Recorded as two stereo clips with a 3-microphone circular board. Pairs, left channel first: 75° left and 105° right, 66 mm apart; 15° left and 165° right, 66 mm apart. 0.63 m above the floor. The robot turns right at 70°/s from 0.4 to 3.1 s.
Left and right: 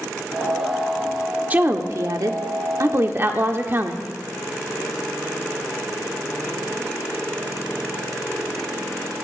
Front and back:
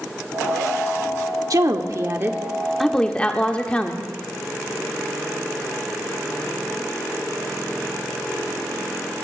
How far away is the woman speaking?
About 1.3 m.